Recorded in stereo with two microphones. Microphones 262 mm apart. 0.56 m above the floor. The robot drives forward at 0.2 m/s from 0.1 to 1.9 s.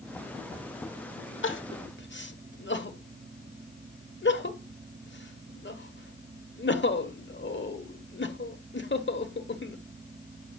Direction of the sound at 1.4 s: 50° left (ahead or behind).